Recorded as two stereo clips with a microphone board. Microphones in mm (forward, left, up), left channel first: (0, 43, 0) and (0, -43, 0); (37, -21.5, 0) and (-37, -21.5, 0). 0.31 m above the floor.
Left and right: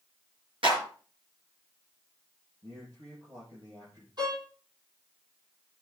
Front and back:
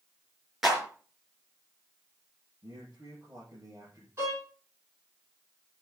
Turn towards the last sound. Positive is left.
turn(degrees=-125)